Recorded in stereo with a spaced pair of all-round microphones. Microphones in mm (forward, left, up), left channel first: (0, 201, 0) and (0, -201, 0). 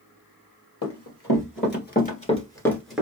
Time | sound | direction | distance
0.8 | running footsteps | 40° left (ahead or behind) | 1.8 m